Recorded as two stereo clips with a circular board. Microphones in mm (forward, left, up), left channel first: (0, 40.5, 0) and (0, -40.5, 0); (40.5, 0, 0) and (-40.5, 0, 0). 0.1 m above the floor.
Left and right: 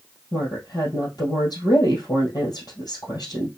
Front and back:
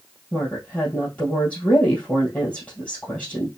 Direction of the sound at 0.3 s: 65° left.